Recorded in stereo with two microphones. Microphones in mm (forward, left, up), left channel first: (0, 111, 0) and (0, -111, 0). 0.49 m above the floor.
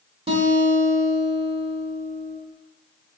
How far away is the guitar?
About 1.0 m.